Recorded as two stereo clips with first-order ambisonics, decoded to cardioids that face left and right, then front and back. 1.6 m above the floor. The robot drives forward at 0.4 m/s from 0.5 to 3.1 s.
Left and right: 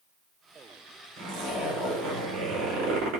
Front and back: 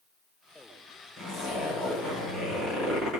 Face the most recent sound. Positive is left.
turn(degrees=-110)